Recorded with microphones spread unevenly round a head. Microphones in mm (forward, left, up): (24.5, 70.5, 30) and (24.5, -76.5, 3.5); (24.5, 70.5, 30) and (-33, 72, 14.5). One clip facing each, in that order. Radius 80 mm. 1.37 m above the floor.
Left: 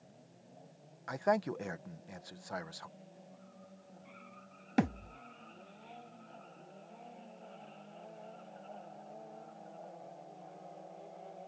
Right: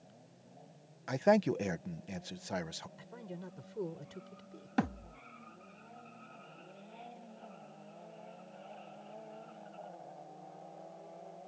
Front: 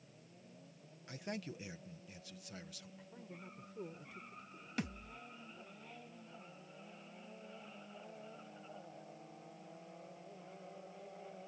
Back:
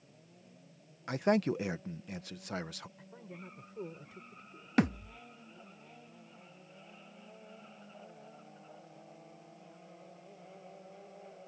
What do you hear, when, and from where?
1.1 s a man speaking: 155° right
3.0 s a man speaking: 105° right
4.8 s a thud: 150° left